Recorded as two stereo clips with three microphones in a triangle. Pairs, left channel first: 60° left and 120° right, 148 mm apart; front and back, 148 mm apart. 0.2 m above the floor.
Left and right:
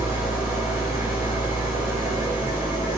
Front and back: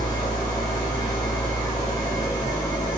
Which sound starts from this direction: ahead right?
An engine running, at 0.0 s.